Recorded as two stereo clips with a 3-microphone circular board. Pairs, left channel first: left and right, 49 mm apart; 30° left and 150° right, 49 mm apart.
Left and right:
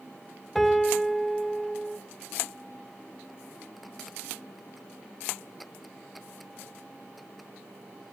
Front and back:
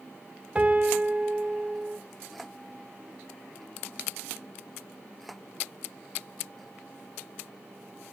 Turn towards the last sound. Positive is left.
turn(degrees=175)